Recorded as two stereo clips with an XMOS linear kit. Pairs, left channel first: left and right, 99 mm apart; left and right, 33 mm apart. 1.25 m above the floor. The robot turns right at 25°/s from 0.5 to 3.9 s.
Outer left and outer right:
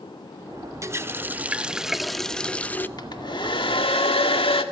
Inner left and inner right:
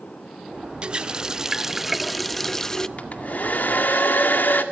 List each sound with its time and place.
0.8 s a running tap: 30° right, 0.7 m; by 2.9 s 20° left, 0.7 m
3.0 s a hair dryer: 45° left (ahead or behind), 1.8 m; by 4.6 s 65° left (ahead or behind), 1.8 m